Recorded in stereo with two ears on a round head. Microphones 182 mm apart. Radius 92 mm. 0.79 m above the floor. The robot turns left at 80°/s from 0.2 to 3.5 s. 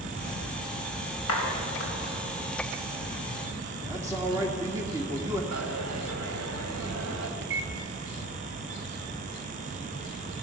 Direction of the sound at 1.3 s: 80° left.